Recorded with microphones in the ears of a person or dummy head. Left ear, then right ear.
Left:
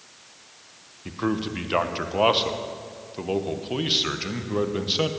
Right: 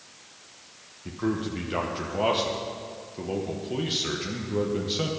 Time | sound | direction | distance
1.1 | a man speaking | 35° left (ahead or behind) | 1.1 m